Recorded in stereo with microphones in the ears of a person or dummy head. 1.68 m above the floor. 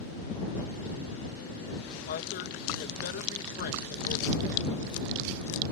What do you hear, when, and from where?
2.1 s a woman speaking: 60° left (ahead or behind)